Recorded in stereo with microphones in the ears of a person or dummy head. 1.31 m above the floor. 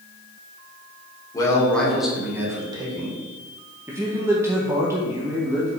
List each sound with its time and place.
1.3 s a man speaking: 20° left (ahead or behind), 1.8 m; by 3.1 s 35° right (ahead or behind), 2.5 m
3.9 s a man speaking: 15° right (ahead or behind), 0.7 m